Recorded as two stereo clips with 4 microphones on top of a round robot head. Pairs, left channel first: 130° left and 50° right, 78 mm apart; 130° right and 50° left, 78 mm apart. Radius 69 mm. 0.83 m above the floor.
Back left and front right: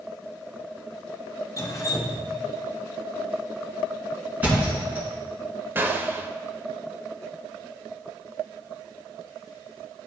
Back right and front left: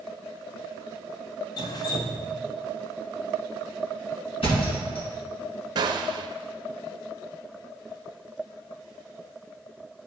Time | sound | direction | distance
1.6 | dripping | 175° right | 0.6 m
4.4 | a thud | 120° right | 2.5 m
5.8 | a gunshot | 15° left | 0.6 m